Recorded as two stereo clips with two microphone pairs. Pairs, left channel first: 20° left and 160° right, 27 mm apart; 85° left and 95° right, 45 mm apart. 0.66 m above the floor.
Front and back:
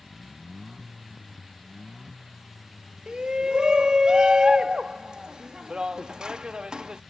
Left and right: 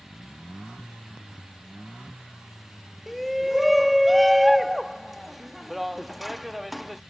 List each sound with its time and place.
3.1 s a shout: straight behind